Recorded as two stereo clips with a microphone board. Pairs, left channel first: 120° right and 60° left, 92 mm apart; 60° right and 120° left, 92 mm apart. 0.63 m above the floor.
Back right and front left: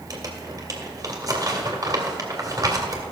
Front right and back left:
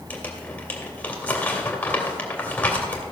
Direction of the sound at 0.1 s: 10° left.